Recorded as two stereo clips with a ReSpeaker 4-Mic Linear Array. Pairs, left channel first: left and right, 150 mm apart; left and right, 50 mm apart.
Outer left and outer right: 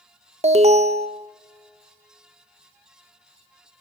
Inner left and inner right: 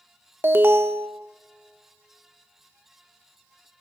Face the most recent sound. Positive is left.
turn(degrees=-45)  # may be behind; listen again after turning